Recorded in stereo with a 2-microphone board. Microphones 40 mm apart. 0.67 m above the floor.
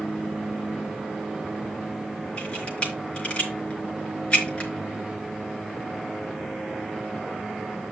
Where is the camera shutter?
25° left (ahead or behind), 4.5 m.